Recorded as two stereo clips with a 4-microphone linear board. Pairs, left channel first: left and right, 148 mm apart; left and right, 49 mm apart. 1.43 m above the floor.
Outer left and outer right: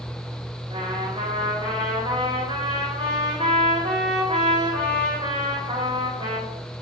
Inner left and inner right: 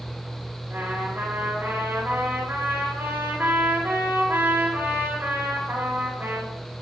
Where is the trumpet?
40° right (ahead or behind), 5 m.